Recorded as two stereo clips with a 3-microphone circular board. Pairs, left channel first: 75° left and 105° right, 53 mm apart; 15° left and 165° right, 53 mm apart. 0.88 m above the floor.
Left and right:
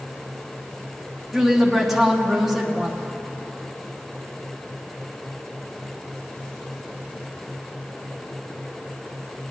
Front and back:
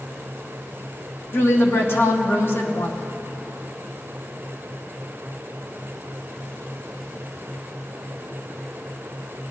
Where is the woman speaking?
20° right, 1.2 m.